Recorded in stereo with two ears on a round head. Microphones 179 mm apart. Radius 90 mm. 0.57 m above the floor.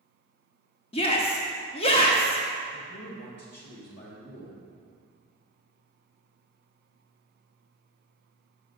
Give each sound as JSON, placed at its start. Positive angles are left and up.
{"t": 0.9, "sound": "a shout", "side_deg": 30, "distance_m": 0.8}
{"t": 2.7, "sound": "a man speaking", "side_deg": 60, "distance_m": 3.0}